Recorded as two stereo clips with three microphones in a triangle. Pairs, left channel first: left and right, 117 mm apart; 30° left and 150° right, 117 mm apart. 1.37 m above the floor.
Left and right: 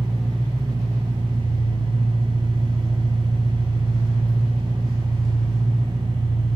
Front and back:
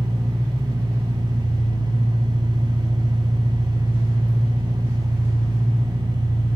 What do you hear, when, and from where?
0.0 s an engine running: 170° left, 0.8 m